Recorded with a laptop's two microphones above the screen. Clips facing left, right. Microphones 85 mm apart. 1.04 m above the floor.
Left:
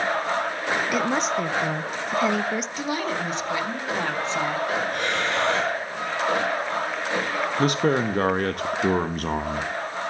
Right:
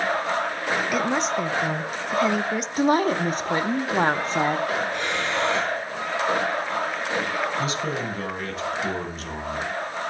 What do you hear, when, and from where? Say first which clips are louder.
0.9 s a woman speaking: even; centre (ahead or behind), 0.6 m
2.8 s a woman speaking: right 7 dB; 40° right (ahead or behind), 1.0 m
4.9 s breathing: left 1 dB; 50° left (ahead or behind), 9.5 m
7.6 s a man speaking: left 6 dB; 55° left (ahead or behind), 0.8 m